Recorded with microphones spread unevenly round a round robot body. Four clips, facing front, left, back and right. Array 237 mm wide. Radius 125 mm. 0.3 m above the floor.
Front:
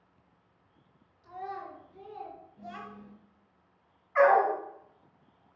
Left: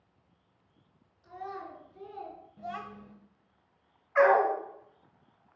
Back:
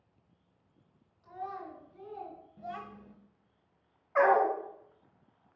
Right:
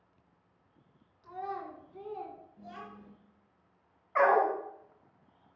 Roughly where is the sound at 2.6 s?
Behind left.